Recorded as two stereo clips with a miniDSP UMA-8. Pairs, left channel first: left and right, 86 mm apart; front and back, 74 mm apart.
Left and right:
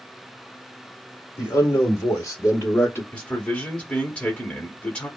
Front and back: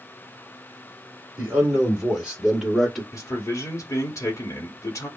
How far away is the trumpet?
I don't hear a trumpet.